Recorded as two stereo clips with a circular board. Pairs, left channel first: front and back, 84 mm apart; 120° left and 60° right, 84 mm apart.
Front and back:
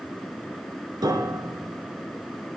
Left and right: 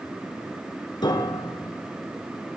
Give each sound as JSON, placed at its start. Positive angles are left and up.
{"t": 1.0, "sound": "a piano", "azimuth_deg": 145, "distance_m": 2.0}